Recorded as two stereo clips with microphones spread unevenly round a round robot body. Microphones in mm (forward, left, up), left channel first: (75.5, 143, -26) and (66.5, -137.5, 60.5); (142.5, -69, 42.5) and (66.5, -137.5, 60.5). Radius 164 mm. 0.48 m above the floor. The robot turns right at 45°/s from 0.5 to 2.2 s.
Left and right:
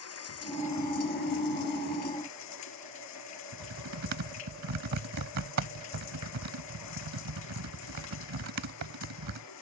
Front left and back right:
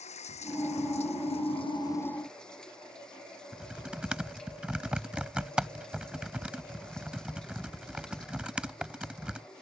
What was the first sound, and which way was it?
Running water, 55° left.